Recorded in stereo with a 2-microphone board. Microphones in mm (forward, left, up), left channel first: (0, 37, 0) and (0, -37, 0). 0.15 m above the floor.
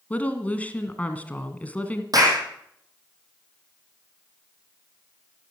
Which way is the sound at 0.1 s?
20° left (ahead or behind).